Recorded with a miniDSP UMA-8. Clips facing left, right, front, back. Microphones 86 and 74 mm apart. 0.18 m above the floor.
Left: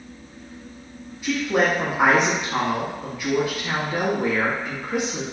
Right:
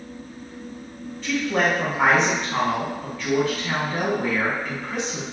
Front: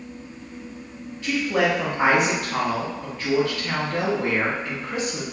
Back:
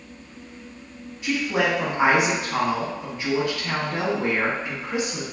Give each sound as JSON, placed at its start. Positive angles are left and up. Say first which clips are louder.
{"t": 1.2, "sound": "a woman speaking", "louder": "left 1 dB, front 1 dB", "azimuth_deg": 145, "distance_m": 1.0}